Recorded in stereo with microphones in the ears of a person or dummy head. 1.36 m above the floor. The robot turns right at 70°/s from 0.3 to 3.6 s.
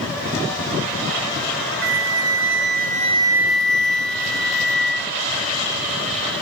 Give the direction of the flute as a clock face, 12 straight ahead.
4 o'clock.